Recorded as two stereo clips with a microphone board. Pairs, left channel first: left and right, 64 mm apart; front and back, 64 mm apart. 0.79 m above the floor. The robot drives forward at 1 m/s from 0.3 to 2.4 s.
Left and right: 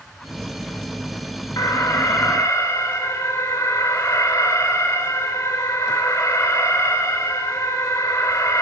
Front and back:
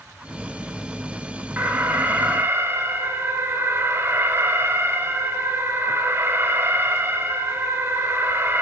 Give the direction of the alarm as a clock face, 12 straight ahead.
8 o'clock.